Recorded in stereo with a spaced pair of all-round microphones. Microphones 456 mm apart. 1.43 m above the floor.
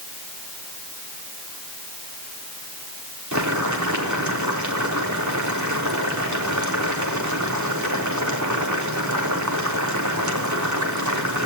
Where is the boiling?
40° right (ahead or behind), 3.5 m.